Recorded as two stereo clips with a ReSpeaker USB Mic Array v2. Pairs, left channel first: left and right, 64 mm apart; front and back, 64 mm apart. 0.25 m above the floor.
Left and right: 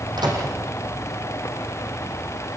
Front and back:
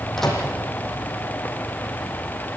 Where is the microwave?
85° right, 7 m.